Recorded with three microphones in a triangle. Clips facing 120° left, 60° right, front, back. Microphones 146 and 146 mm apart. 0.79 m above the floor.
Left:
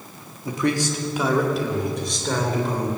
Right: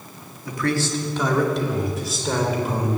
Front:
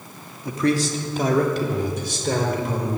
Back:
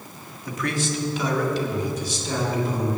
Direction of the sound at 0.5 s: 60° left.